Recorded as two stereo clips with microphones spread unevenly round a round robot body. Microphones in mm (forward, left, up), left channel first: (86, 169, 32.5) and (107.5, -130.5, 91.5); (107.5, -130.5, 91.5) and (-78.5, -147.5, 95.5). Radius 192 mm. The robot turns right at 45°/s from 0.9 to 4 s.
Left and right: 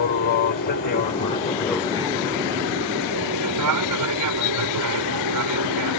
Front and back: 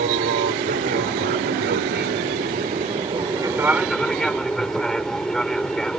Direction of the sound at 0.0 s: 140° left.